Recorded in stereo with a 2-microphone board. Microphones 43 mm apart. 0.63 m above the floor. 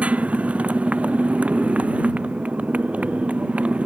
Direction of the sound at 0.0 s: 30° right (ahead or behind).